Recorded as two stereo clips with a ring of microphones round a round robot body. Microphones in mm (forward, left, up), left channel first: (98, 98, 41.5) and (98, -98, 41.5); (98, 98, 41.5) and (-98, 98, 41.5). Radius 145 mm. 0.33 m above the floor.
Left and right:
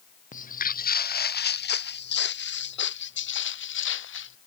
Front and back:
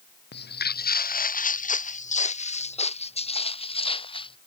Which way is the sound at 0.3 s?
40° left.